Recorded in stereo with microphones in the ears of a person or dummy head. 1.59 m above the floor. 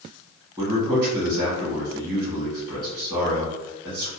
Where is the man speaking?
20° right (ahead or behind), 1.1 m.